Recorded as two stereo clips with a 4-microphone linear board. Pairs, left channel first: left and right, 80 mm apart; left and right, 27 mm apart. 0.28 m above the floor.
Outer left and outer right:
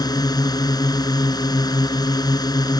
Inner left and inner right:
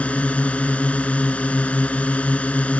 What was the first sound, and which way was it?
A drone, 55° left (ahead or behind).